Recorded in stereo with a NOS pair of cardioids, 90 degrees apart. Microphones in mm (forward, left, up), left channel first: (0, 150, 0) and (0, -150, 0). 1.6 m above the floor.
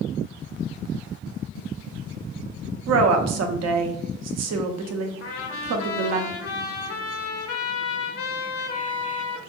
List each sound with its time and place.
2.9 s a woman speaking: 60° right, 0.6 m
5.2 s a trumpet: 50° left, 0.7 m